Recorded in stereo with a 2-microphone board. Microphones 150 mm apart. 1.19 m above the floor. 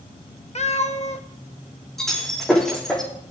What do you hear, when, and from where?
0.6 s a cat meowing: 45° left (ahead or behind), 0.7 m
2.0 s breaking glass: 5° left (ahead or behind), 6 m